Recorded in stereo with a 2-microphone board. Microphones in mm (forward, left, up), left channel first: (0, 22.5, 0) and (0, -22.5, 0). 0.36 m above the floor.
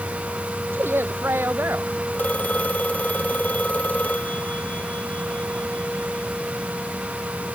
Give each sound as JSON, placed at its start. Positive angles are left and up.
{"t": 0.7, "sound": "a woman speaking", "side_deg": -55}
{"t": 2.1, "sound": "a phone ringing", "side_deg": 30}